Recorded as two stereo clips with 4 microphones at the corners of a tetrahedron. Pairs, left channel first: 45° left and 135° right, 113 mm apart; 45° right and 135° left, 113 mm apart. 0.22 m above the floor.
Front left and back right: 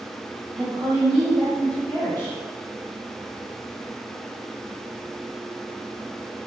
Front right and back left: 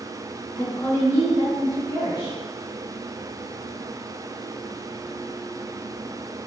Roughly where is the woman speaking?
Right.